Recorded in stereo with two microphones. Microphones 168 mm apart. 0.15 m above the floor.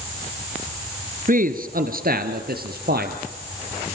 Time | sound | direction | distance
1.3 | a man speaking | 55° right (ahead or behind) | 2 m